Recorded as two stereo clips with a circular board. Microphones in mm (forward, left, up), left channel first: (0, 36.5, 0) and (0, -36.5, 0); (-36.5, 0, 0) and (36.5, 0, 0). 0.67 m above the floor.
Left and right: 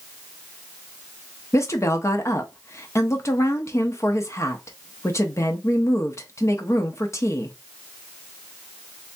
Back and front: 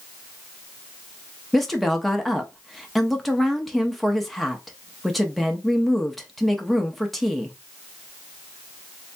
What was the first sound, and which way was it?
A woman speaking, 90° left.